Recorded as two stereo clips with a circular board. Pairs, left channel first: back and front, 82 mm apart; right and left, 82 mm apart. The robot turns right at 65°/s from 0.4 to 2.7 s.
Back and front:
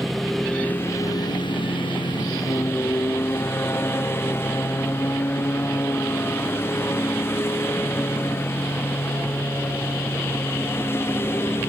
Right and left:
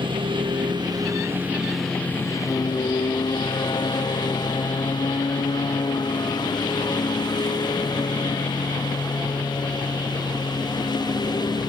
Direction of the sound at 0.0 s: 90° left.